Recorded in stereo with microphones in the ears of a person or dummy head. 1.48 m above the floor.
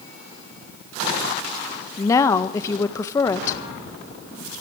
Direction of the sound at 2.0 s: 25° left (ahead or behind).